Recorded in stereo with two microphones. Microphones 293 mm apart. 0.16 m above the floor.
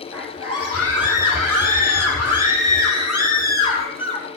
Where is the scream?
50° right (ahead or behind), 7 m; by 4.3 s 60° right (ahead or behind), 5 m.